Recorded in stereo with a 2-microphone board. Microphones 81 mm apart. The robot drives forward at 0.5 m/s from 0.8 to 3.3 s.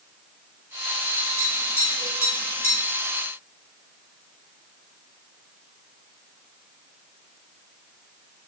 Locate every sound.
1.4 s tapping: 35° left (ahead or behind), 7.5 m; by 2.8 s 40° left (ahead or behind), 7 m